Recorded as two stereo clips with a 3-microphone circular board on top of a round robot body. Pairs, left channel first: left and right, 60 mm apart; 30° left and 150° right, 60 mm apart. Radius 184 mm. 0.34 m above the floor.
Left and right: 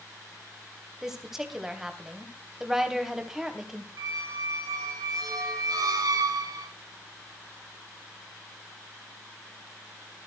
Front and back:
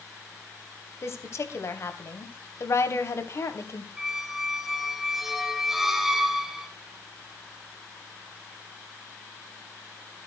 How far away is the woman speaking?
About 3 m.